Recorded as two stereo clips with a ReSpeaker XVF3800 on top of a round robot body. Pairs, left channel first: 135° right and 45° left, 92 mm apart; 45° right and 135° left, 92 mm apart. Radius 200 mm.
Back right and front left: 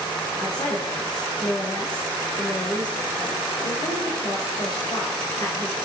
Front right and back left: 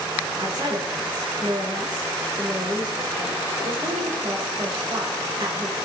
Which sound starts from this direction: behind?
A woman speaking, at 0.4 s.